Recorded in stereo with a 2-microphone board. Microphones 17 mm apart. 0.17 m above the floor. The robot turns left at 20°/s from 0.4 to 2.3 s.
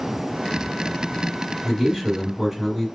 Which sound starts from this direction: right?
A man speaking, at 1.6 s.